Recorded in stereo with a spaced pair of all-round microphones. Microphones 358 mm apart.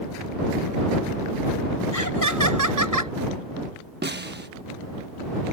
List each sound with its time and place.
1.9 s laughter: 60° right (ahead or behind)
4.0 s a snare drum: 30° right (ahead or behind)